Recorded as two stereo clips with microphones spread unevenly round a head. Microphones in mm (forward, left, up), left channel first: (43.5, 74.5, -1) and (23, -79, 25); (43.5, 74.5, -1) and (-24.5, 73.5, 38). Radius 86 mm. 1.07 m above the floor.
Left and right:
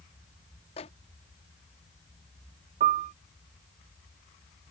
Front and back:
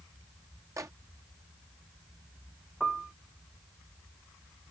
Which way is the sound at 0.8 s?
135° left.